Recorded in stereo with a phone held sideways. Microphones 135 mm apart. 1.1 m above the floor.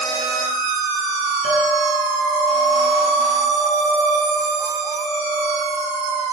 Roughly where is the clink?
Left.